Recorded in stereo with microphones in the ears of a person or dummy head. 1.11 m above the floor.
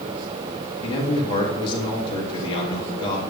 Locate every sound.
0.8 s a man speaking: 25° left (ahead or behind), 1.4 m